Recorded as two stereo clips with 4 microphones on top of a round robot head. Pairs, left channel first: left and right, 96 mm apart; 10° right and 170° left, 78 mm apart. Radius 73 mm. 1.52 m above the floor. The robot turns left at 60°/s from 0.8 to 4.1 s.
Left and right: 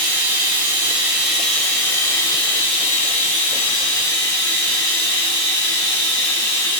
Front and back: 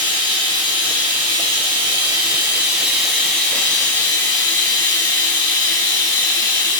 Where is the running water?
140° right, 1.0 m; by 6.8 s 25° left, 1.0 m.